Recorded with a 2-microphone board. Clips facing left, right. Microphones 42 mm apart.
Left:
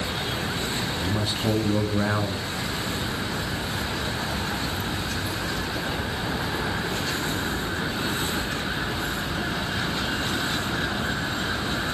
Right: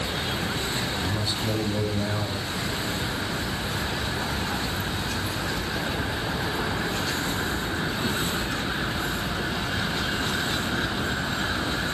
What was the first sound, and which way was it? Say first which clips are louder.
A man speaking: left 2 dB; 40° left (ahead or behind).